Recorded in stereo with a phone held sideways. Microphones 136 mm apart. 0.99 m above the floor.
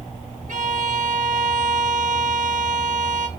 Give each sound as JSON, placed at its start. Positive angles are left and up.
{"t": 0.5, "sound": "a violin", "side_deg": -70, "distance_m": 1.1}